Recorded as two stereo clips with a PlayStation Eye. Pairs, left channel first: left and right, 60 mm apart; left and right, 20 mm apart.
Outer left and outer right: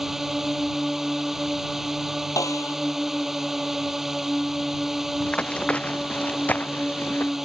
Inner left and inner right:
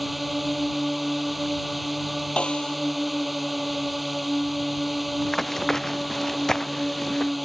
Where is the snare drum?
65° left (ahead or behind).